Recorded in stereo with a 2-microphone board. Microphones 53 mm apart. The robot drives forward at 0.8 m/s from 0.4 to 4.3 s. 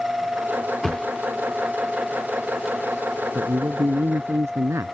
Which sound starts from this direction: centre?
A thud, at 0.8 s.